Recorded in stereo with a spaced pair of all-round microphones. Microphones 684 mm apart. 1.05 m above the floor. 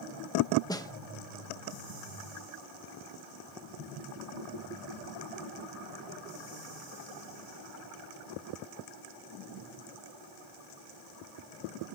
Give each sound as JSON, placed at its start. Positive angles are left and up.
{"t": 0.7, "sound": "a snare drum", "side_deg": 5, "distance_m": 1.2}